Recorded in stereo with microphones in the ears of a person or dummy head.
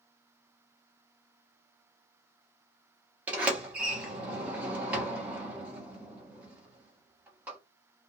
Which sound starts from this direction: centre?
A sliding door, at 3.3 s.